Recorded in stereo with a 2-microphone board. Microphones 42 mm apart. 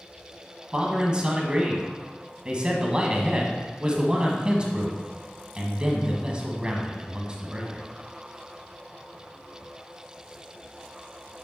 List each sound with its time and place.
0.7 s a man speaking: 25° right (ahead or behind), 1.5 m